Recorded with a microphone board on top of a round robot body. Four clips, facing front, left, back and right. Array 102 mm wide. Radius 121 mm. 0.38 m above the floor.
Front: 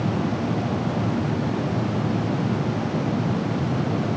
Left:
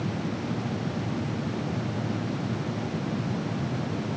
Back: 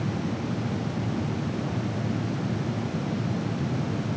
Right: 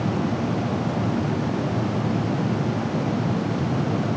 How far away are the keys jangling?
I don't hear keys jangling.